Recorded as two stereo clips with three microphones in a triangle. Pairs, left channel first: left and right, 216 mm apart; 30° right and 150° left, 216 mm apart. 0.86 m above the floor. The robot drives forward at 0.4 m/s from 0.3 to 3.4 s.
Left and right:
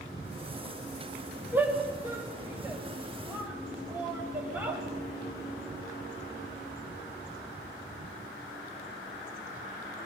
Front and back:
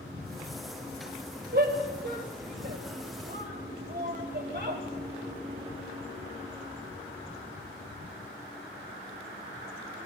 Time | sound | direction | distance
1.5 | a shout | 170° right | 4.5 m